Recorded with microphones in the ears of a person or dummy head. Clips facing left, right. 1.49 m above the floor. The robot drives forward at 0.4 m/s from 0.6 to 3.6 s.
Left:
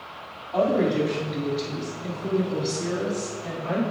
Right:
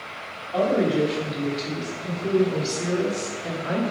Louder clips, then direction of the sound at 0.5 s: Right 1 dB; 5° right (ahead or behind).